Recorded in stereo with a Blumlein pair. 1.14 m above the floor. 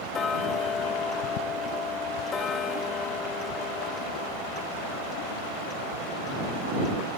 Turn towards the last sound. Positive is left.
turn(degrees=20)